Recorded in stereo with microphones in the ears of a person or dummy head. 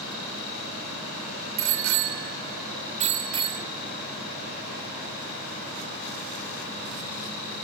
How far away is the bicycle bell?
About 2.5 m.